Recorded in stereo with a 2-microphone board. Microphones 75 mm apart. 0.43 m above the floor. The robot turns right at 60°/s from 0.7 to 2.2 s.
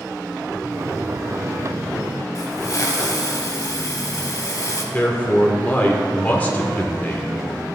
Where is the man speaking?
20° left (ahead or behind), 0.8 m.